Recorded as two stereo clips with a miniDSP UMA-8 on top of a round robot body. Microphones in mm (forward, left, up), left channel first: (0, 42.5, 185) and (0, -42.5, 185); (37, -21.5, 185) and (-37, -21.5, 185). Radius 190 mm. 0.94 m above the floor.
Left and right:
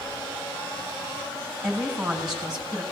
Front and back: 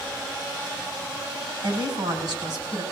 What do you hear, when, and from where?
1.6 s a woman speaking: 170° right, 4 m